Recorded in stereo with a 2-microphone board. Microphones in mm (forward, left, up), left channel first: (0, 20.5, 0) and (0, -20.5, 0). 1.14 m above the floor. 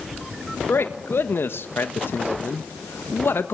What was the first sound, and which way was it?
A man speaking, 70° left (ahead or behind).